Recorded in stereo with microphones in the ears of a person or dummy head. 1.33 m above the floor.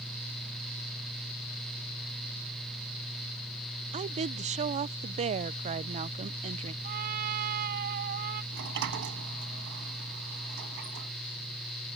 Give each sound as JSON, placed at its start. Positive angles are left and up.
{"t": 3.9, "sound": "a woman speaking", "side_deg": -35}
{"t": 6.8, "sound": "a trumpet", "side_deg": -45}
{"t": 8.5, "sound": "a sliding door", "side_deg": -65}